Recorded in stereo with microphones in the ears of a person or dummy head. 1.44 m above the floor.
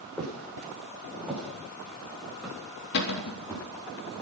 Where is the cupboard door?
55° left (ahead or behind), 2.5 m.